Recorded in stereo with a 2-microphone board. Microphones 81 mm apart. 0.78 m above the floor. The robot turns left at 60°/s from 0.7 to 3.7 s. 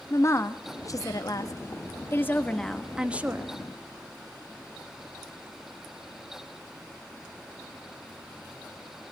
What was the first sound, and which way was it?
A woman speaking, 125° left.